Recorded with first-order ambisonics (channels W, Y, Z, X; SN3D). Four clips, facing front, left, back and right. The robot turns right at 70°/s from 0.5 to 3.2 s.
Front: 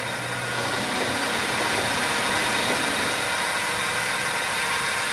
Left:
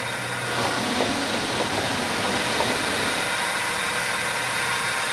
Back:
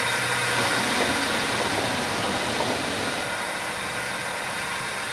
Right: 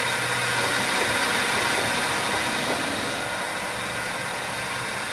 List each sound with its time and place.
0.0 s a drone: 145° right; by 5.1 s 45° left